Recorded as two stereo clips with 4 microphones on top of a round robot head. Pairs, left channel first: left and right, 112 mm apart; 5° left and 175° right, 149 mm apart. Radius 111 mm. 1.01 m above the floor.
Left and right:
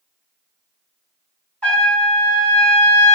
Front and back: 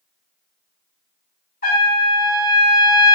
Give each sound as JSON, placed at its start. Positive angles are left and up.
{"t": 1.6, "sound": "a trumpet", "azimuth_deg": 10, "distance_m": 1.7}